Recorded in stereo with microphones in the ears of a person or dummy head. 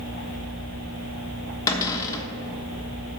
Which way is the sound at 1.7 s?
15° left (ahead or behind).